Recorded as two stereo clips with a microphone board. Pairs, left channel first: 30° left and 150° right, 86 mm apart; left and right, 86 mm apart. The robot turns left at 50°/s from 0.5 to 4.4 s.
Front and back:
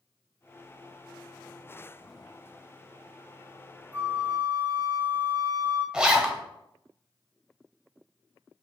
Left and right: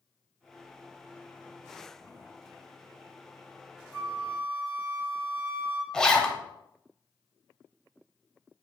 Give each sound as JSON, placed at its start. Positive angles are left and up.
{"t": 3.9, "sound": "a flute", "azimuth_deg": 90, "distance_m": 0.9}
{"t": 5.9, "sound": "a zipper", "azimuth_deg": 150, "distance_m": 0.5}